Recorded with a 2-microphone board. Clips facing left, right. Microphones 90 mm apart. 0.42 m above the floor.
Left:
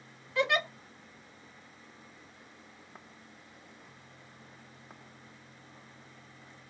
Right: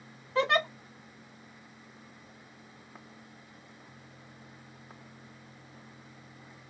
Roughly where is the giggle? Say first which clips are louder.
Right 2 dB; right.